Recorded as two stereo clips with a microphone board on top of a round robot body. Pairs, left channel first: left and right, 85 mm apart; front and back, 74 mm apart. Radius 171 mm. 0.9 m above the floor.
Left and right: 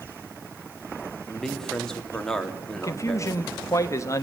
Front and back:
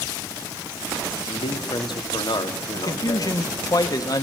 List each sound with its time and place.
1.3 s a man speaking: 5° left, 2.5 m
2.8 s a man speaking: 35° left, 1.3 m